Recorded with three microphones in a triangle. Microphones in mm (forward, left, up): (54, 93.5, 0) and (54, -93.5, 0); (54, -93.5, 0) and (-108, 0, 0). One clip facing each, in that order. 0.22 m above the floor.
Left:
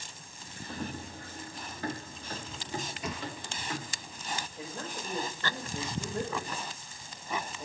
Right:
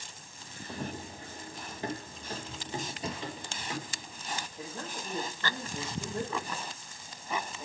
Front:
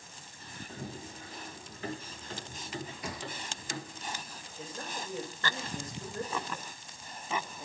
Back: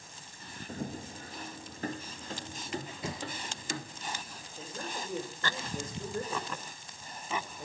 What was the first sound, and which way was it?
Running footsteps, 160° right.